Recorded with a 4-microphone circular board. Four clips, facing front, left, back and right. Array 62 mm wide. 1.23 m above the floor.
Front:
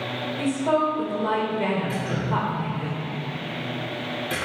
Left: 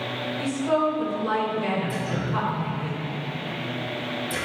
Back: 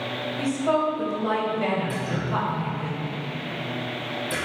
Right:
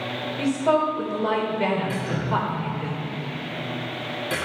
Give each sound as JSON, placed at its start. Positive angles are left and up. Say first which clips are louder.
{"t": 0.4, "sound": "a woman speaking", "louder": "right 3 dB, front 1 dB", "azimuth_deg": -65, "distance_m": 4.0}
{"t": 1.9, "sound": "dripping", "louder": "right 2 dB, front 1 dB", "azimuth_deg": -50, "distance_m": 4.5}